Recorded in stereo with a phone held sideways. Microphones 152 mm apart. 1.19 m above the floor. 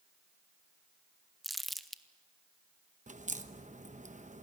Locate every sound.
1.4 s crumpling: centre (ahead or behind), 0.9 m
3.1 s a crack: 55° right (ahead or behind), 1.0 m